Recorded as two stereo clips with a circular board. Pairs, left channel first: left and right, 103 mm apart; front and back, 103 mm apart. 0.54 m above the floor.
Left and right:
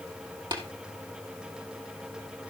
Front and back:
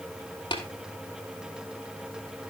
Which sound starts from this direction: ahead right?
Tapping, at 0.5 s.